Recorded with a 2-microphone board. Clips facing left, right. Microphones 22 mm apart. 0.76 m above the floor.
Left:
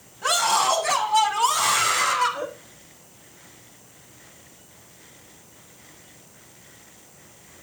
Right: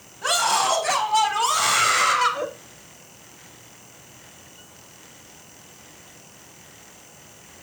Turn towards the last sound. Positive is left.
turn(degrees=-20)  # may be behind; listen again after turning